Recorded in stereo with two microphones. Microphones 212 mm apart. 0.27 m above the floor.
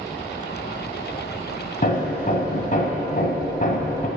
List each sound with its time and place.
1.8 s hammering: 40° left (ahead or behind), 1.5 m